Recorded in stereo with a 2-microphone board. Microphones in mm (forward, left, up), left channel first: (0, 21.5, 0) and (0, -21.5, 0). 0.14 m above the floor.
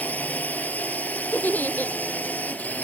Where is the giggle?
50° left (ahead or behind).